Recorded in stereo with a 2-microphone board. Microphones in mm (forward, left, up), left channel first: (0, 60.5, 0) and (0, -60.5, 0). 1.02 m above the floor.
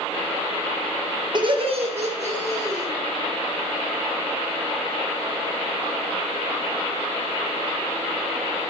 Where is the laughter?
40° right (ahead or behind), 1.1 m; by 2.9 s 70° right (ahead or behind), 2.5 m.